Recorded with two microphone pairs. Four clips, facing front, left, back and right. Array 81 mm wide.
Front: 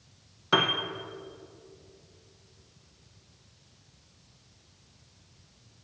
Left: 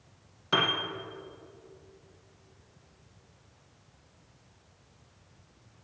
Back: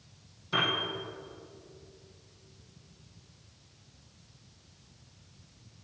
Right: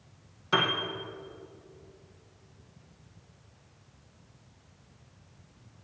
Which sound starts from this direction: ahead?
A piano, at 0.5 s.